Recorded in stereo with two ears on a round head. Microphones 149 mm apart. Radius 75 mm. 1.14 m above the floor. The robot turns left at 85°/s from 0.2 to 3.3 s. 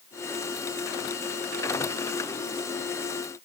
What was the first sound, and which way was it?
Only background noise.